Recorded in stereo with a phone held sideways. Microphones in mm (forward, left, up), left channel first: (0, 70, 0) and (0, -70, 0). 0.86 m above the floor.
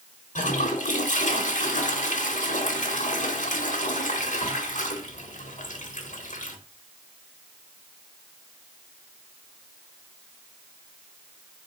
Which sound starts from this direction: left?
A toilet flushing, at 0.3 s.